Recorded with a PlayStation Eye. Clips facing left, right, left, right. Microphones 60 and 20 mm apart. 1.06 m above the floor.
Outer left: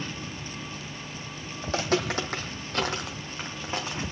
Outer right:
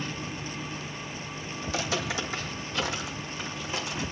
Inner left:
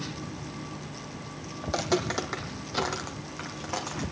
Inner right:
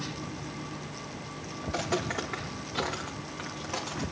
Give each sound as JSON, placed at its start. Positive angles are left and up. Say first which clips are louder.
{"t": 1.6, "sound": "footsteps", "louder": "outer left 4 dB, inner left 3 dB", "side_deg": 45, "distance_m": 1.9}